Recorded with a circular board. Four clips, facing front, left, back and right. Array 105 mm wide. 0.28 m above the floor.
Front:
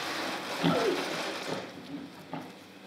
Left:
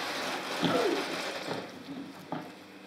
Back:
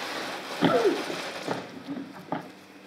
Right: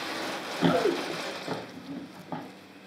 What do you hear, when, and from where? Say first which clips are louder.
0.1 s running footsteps: right 4 dB, back 8 dB; 160° right, 3.5 m; by 2.4 s straight behind, 2.5 m